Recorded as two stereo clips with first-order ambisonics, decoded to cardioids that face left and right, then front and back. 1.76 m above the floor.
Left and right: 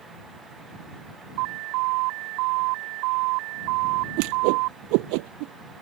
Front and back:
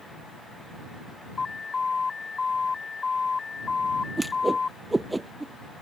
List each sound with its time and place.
1.4 s an alarm: 75° right
4.2 s a whoosh: 95° right